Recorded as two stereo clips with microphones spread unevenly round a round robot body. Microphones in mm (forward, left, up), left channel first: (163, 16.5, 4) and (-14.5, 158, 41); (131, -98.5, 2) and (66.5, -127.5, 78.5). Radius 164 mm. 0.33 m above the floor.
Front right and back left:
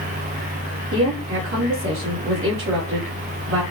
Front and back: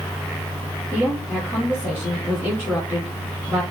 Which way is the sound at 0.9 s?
115° left.